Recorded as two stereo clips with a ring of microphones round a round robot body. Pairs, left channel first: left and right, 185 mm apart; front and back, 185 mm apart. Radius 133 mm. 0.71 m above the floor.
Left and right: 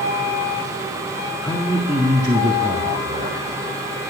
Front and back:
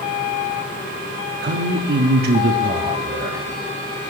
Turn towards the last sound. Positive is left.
turn(degrees=-130)